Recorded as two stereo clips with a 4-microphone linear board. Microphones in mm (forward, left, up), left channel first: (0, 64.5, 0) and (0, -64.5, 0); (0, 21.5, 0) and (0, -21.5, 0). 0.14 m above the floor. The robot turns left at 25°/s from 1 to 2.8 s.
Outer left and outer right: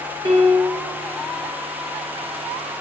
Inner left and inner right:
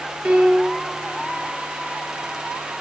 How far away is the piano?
About 10 m.